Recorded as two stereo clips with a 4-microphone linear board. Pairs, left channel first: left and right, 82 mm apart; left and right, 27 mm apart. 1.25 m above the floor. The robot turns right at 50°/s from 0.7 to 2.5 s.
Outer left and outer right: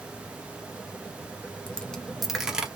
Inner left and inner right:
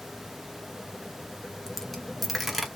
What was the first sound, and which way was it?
A dropped coin, 150° left.